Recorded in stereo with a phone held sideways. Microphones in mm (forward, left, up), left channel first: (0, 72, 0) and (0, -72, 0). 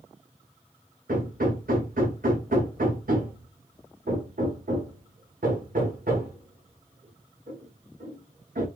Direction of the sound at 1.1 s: 80° right.